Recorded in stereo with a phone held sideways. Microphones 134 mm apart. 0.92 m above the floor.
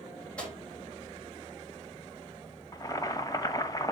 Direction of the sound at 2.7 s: 25° left (ahead or behind).